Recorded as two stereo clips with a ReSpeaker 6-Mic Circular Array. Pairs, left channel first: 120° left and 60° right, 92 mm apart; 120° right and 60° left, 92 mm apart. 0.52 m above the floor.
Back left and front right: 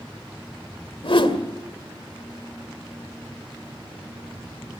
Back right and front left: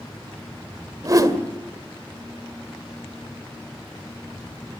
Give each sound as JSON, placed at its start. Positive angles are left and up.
{"t": 1.0, "sound": "a whoosh", "azimuth_deg": 110, "distance_m": 1.9}